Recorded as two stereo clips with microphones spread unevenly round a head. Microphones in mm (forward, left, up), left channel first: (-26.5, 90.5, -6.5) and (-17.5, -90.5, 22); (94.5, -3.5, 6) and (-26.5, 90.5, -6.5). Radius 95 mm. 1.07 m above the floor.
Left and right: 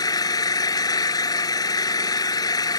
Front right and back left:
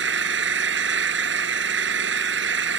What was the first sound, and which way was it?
An engine running, 165° left.